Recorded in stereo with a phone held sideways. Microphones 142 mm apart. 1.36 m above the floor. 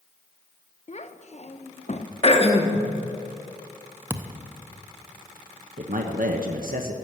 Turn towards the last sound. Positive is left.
turn(degrees=-75)  # may be behind; listen again after turning